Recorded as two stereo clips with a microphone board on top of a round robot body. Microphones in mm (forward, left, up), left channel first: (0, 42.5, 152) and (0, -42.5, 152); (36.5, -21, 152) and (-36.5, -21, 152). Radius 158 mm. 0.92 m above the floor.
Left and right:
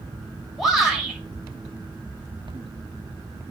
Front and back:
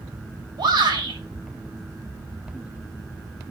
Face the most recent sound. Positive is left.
turn(degrees=180)